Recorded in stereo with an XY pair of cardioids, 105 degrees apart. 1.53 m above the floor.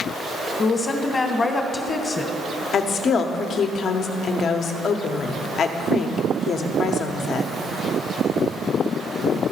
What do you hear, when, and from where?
0.6 s a woman speaking: 35° left, 1.1 m
2.7 s a woman speaking: 60° left, 0.8 m